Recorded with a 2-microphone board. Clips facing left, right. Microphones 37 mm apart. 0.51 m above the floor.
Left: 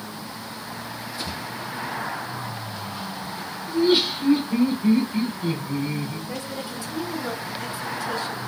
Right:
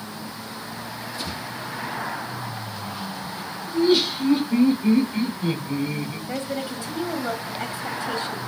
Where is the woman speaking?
30° right (ahead or behind), 1.0 m.